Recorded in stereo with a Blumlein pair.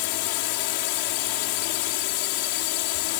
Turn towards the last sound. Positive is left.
turn(degrees=45)